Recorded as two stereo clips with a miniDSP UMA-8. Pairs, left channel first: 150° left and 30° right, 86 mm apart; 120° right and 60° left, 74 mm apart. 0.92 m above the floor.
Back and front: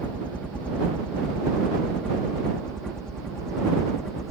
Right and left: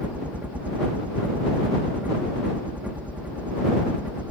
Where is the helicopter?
95° left; by 4.3 s 75° left.